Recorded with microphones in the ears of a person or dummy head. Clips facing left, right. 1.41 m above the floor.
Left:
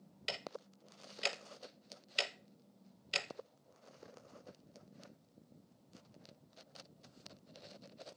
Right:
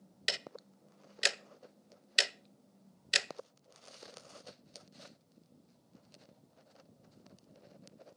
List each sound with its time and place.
0.3 s ticking: 25° right (ahead or behind), 0.7 m